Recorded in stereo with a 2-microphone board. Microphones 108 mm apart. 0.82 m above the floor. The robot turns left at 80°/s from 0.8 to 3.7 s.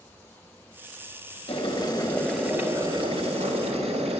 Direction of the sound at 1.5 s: 65° left.